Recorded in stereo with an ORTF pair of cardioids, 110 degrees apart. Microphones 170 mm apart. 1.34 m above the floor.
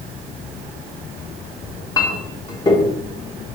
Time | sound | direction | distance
1.6 | a clink | 25° left | 1.1 m